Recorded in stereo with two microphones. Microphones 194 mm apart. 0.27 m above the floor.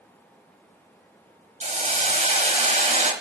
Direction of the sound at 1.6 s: 40° right (ahead or behind).